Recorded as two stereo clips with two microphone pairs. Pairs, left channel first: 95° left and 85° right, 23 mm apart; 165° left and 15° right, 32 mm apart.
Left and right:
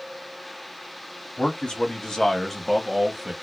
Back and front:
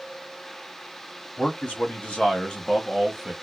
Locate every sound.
1.4 s a man speaking: 135° left, 1.4 m; by 3.3 s 100° right, 1.0 m